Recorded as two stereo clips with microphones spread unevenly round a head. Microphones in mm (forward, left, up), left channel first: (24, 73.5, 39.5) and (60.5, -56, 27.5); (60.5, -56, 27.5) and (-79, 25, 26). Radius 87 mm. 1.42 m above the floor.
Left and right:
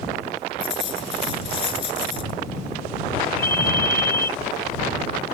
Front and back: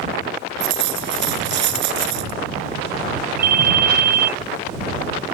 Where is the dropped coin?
165° left.